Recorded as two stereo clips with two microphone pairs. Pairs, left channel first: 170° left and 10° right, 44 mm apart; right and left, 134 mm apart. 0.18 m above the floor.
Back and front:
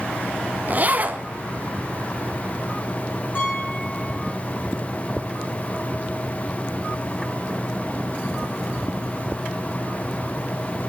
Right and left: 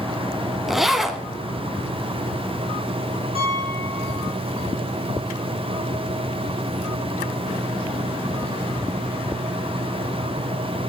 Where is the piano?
135° left, 3.5 m.